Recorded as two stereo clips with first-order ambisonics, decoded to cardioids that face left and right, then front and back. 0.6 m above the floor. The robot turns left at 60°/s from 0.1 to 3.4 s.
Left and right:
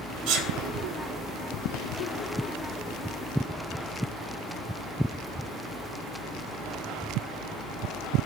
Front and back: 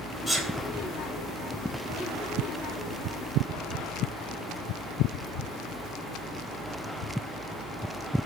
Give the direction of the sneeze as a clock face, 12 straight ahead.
2 o'clock.